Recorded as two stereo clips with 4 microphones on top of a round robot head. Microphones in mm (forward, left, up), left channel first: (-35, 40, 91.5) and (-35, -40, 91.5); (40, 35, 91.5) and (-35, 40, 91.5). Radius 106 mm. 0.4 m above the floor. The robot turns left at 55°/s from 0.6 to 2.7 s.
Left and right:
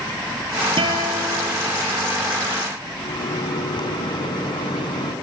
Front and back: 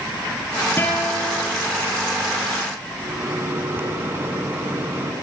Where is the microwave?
115° left, 4 m.